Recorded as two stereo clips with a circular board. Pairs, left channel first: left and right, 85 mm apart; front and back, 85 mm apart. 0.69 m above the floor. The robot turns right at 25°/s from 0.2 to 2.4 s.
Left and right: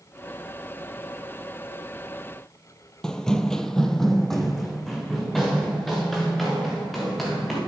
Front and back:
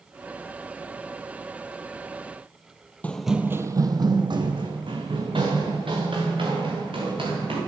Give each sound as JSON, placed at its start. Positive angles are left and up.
{"t": 3.0, "sound": "running footsteps", "azimuth_deg": 20, "distance_m": 0.7}